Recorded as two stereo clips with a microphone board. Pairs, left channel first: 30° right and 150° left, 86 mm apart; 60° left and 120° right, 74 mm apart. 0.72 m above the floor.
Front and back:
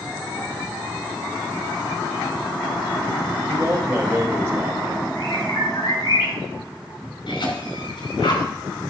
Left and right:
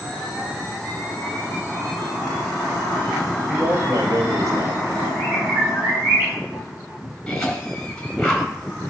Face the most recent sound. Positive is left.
turn(degrees=-20)